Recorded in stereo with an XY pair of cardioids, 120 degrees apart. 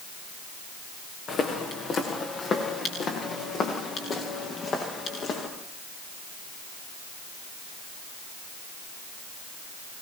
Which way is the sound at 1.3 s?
50° left.